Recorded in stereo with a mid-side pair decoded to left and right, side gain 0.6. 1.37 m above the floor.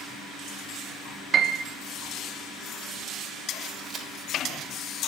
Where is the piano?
40° right, 1.5 m.